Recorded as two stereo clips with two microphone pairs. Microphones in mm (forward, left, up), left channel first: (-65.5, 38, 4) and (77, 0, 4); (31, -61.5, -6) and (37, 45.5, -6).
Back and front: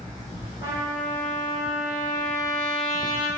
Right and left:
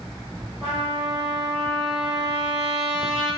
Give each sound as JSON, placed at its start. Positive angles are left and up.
{"t": 0.6, "sound": "a trumpet", "azimuth_deg": 165, "distance_m": 1.8}